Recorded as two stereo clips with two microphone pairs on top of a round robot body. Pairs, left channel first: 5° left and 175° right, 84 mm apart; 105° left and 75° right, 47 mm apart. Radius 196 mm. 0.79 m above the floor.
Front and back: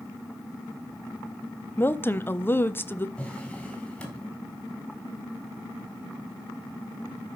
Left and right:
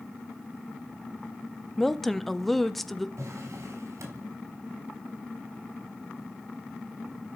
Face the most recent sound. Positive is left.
turn(degrees=-75)